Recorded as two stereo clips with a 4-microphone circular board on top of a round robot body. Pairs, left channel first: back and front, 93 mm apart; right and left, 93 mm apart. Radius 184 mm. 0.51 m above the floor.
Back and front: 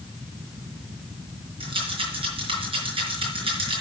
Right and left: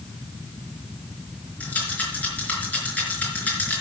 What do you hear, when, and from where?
1.6 s a rattle: 15° right, 4.5 m